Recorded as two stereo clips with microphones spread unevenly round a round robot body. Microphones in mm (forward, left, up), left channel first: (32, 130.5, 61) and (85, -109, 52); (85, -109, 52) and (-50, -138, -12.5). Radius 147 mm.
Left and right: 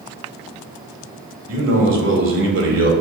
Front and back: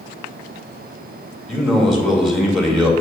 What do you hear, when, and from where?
1.5 s a man speaking: 100° right, 2.5 m